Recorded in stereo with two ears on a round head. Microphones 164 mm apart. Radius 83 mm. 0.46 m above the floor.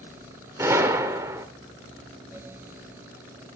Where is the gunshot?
15° right (ahead or behind), 1.4 m.